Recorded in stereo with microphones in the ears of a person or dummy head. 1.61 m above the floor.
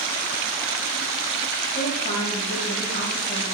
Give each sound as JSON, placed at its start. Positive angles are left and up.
{"t": 1.8, "sound": "a woman speaking", "side_deg": 45, "distance_m": 7.5}